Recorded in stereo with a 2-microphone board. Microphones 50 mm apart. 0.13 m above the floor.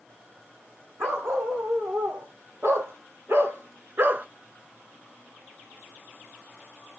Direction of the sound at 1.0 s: 60° right (ahead or behind).